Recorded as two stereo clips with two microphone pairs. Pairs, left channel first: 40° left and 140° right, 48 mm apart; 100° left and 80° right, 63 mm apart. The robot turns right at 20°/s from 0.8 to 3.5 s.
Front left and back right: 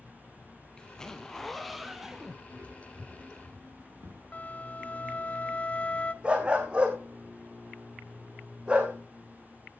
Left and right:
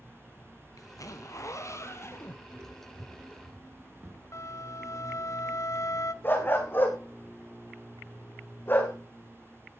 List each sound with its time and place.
0.8 s a zipper: 115° left, 1.7 m; by 2.4 s 145° left, 1.7 m
2.5 s footsteps: 135° right, 5.5 m; by 4.2 s 120° right, 4.5 m
4.3 s a flute: 95° left, 0.8 m
6.2 s a dog barking: 155° left, 3 m